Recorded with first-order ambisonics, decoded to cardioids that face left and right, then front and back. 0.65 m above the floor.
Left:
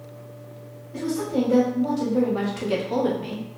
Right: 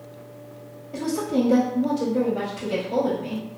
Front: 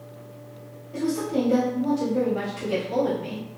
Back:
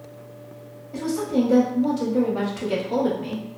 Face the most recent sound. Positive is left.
turn(degrees=110)